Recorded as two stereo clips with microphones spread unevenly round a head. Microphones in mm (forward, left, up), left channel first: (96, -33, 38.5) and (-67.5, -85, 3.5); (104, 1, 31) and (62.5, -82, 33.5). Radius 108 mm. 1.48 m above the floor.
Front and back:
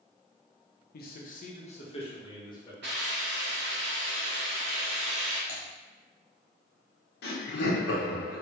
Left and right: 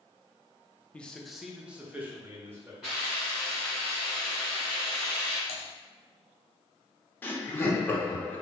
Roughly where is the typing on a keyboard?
Left.